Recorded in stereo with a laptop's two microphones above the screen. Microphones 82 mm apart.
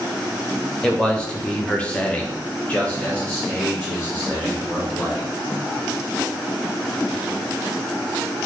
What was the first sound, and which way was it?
A man speaking, 10° left (ahead or behind).